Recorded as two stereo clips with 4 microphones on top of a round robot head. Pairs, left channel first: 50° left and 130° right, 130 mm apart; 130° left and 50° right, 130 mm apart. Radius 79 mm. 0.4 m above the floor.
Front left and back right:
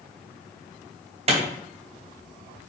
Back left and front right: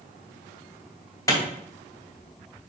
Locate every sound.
1.3 s a clap: 165° right, 2.5 m